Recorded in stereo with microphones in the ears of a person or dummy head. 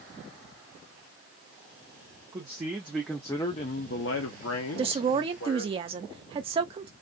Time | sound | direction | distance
2.3 | a man speaking | 25° right (ahead or behind) | 0.9 m
4.8 | a woman speaking | 35° right (ahead or behind) | 0.5 m